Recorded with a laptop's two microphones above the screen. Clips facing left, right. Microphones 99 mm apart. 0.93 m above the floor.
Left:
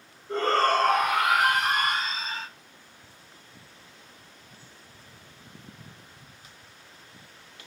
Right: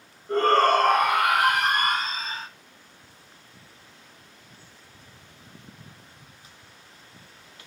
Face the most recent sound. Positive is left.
turn(degrees=-40)  # may be behind; listen again after turning